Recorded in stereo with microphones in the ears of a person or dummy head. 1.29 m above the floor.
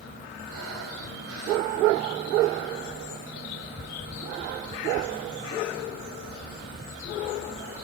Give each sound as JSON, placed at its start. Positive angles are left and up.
{"t": 0.5, "sound": "breathing", "side_deg": -80, "distance_m": 4.0}